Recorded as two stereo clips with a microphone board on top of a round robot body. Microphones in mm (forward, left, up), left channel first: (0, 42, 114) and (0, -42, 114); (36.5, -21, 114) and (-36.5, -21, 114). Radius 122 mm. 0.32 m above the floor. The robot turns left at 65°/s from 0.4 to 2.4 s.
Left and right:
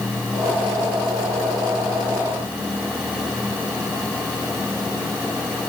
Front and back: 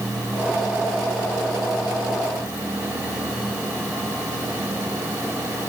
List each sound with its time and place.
Only background noise.